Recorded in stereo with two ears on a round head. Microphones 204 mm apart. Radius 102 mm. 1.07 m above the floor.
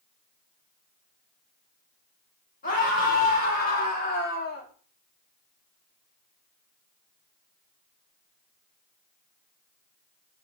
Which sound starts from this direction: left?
A scream, at 2.6 s.